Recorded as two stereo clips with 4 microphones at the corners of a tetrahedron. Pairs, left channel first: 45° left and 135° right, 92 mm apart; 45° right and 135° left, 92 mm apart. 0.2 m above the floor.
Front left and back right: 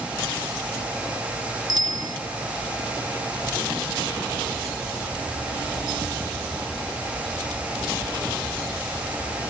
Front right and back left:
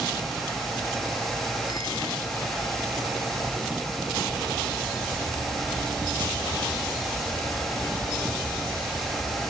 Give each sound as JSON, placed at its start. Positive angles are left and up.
{"t": 1.7, "sound": "a bicycle bell", "azimuth_deg": -90}